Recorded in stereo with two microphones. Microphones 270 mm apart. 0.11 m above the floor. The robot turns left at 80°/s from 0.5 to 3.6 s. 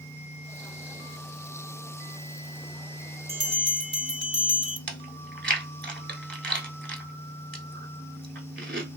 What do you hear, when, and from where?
3.3 s a bell: 30° right (ahead or behind), 0.7 m; by 4.8 s 15° right (ahead or behind), 0.7 m
4.9 s chewing: 45° right (ahead or behind), 0.7 m